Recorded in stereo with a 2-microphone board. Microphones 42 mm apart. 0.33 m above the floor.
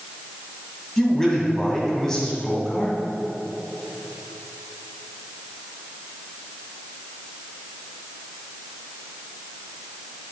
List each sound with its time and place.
1.0 s a man speaking: 10° left (ahead or behind), 2 m